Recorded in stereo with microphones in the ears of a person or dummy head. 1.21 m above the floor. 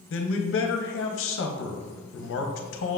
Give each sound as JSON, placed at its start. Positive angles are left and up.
{"t": 0.1, "sound": "a man speaking", "side_deg": 60, "distance_m": 0.8}